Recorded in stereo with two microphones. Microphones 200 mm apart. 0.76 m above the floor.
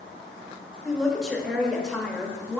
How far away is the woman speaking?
About 0.8 m.